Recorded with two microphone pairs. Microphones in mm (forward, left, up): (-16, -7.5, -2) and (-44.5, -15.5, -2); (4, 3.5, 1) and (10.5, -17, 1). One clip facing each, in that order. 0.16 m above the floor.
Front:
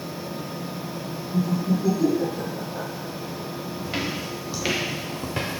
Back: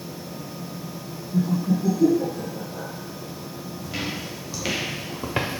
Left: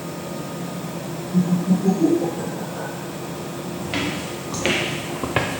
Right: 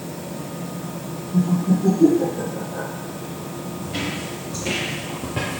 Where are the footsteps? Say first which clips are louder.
Front 1 dB, left 2 dB; 75° left, 1.5 m; by 5.6 s 155° left, 0.7 m.